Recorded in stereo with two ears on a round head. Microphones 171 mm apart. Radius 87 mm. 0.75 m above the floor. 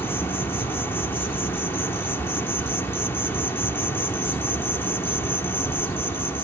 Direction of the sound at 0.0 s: 10° left (ahead or behind).